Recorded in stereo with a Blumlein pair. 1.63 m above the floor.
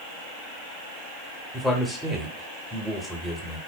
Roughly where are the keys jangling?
I don't hear keys jangling.